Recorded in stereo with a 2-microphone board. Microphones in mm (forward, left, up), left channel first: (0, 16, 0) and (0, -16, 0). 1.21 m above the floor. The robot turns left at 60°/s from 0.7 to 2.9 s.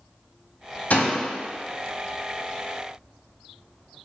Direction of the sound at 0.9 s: 55° left (ahead or behind).